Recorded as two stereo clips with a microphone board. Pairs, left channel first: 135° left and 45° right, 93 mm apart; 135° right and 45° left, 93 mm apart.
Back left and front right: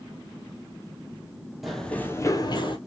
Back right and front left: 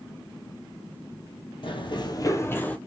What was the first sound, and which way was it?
Running footsteps, 135° right.